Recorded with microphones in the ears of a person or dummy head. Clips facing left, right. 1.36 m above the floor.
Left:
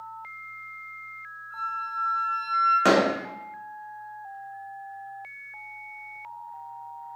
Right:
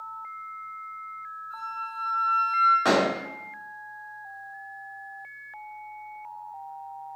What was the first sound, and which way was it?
A flute, 15° right (ahead or behind).